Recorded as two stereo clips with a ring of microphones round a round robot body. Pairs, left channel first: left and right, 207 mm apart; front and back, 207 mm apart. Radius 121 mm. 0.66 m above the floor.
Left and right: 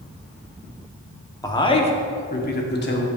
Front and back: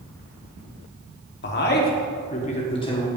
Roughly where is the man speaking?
Ahead.